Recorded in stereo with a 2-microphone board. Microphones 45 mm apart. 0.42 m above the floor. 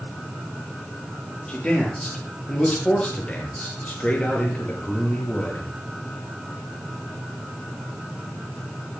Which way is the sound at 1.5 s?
20° left (ahead or behind).